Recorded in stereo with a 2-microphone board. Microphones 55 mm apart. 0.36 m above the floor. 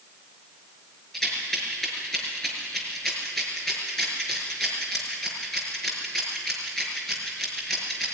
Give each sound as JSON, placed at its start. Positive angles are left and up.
{"t": 1.1, "sound": "a rattle", "side_deg": 5, "distance_m": 5.0}